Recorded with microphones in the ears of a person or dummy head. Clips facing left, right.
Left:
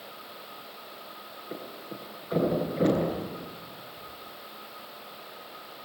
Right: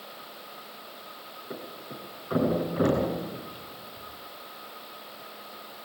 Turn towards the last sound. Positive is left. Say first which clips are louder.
# even
turn(degrees=-70)  # may be behind; listen again after turning